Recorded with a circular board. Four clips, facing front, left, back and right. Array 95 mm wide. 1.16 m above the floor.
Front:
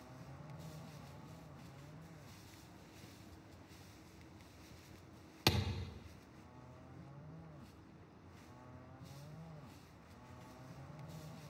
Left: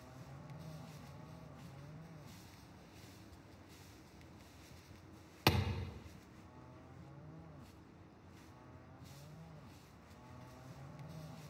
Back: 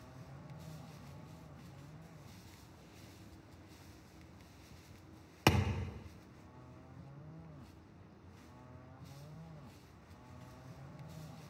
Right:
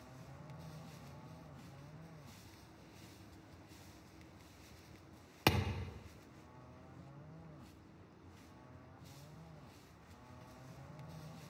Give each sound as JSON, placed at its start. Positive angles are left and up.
{"t": 5.5, "sound": "a thud", "azimuth_deg": -170, "distance_m": 0.8}